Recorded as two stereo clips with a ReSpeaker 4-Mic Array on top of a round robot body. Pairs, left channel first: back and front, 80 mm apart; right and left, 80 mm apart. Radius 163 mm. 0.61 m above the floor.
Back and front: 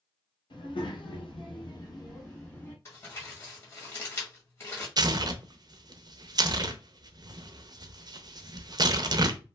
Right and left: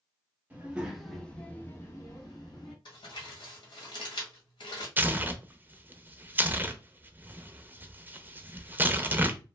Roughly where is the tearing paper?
Ahead left.